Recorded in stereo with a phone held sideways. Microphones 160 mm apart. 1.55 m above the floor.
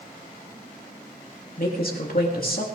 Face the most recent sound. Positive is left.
turn(degrees=65)  # may be behind; listen again after turning